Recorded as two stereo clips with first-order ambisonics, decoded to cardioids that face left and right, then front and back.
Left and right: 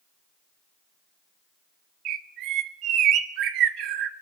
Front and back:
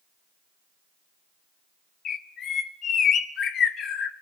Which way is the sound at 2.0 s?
55° right.